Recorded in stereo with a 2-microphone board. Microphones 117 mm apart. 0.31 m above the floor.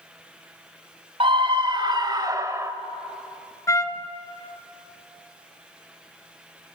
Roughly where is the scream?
Right.